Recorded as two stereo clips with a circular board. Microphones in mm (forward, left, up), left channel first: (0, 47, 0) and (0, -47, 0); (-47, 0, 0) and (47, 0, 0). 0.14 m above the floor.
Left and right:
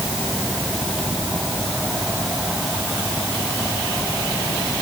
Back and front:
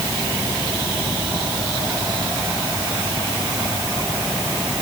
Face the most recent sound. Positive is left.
No sound to turn to.